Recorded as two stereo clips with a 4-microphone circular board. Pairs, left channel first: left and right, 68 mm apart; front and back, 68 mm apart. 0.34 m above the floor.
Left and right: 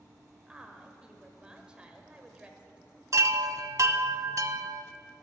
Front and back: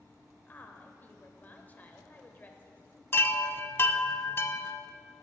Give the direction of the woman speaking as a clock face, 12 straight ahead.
1 o'clock.